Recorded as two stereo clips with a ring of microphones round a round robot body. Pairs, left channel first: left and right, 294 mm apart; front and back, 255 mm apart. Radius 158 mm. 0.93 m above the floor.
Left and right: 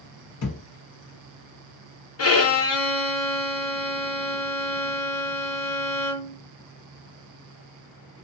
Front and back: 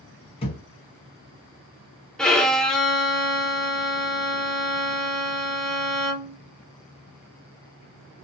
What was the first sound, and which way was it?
A thud, 60° left.